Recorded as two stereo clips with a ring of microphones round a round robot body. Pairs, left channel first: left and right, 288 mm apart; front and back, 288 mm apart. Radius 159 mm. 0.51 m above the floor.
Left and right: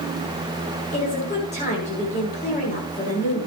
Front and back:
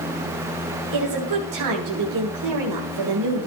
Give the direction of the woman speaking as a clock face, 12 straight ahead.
7 o'clock.